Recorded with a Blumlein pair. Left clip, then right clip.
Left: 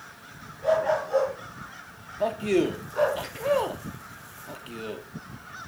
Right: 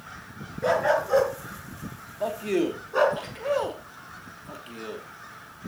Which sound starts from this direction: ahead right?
A dog barking, at 0.6 s.